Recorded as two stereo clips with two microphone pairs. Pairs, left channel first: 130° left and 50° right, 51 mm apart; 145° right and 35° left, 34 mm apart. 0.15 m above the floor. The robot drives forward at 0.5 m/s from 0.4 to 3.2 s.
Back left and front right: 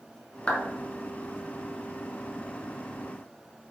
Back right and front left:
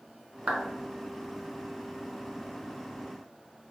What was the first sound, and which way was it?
A clap, 70° left.